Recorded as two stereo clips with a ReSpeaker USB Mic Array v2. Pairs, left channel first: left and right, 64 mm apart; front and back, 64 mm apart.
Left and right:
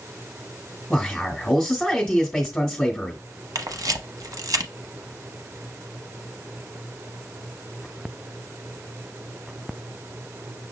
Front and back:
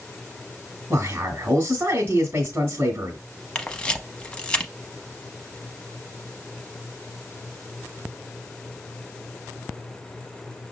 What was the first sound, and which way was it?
A man speaking, 160° left.